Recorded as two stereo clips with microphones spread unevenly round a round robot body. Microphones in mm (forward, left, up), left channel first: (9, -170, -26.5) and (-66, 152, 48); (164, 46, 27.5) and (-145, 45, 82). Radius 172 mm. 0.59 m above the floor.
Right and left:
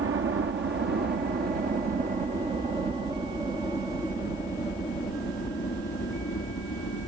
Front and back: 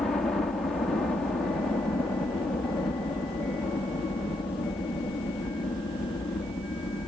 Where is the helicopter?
65° left; by 7.1 s 60° right.